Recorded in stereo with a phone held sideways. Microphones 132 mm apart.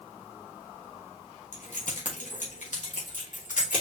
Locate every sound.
1.5 s keys jangling: 70° left (ahead or behind), 1.2 m; by 3.8 s 80° left, 2.5 m